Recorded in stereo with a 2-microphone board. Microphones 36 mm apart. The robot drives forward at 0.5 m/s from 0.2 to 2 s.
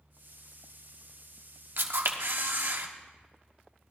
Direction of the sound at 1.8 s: 80° right.